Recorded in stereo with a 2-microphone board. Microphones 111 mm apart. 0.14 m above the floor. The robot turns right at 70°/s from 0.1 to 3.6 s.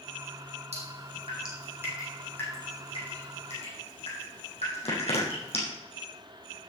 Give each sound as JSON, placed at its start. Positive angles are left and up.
{"t": 0.7, "sound": "dripping", "side_deg": -75, "distance_m": 6.0}